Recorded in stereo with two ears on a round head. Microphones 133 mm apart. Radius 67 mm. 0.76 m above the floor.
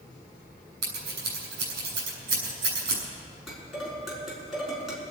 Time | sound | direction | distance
0.8 | scissors | 85° right | 6 m
3.5 | dishes clattering | centre (ahead or behind) | 6 m